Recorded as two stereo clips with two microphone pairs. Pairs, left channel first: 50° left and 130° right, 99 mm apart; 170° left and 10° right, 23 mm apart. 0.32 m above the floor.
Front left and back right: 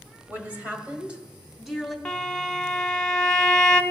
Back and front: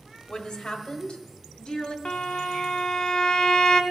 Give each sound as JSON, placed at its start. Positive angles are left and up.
{"t": 0.3, "sound": "a woman speaking", "azimuth_deg": 175, "distance_m": 1.3}
{"t": 2.0, "sound": "a violin", "azimuth_deg": 130, "distance_m": 0.7}